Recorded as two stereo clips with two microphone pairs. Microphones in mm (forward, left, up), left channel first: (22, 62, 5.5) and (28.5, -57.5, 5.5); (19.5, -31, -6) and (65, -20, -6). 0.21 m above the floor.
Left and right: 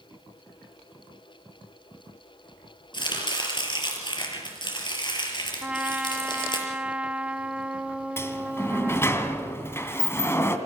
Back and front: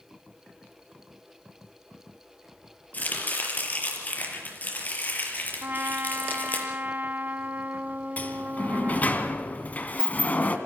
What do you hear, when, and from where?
2.9 s chopping: 145° left, 5.5 m
5.6 s a trumpet: 10° right, 1.0 m
8.2 s a sliding door: 155° left, 2 m